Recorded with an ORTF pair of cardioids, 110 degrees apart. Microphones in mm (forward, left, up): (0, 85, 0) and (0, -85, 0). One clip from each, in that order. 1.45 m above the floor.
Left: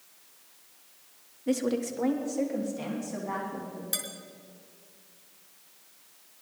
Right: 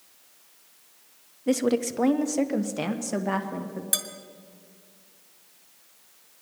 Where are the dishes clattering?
40° right, 2.5 m.